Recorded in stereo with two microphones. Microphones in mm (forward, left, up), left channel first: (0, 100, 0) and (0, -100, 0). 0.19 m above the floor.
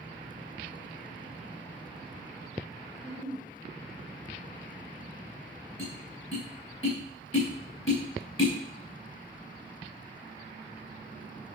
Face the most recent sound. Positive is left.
turn(degrees=85)